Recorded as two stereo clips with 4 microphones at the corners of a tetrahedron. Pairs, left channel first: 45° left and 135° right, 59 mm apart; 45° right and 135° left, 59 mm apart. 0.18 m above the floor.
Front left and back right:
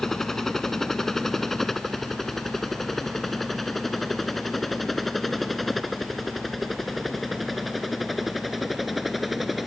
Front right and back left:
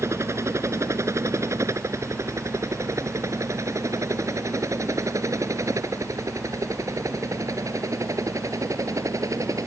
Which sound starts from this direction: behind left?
A helicopter, at 0.0 s.